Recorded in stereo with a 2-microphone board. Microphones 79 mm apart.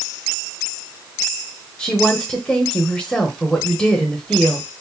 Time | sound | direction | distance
1.8 | a woman speaking | 15° left (ahead or behind) | 0.9 m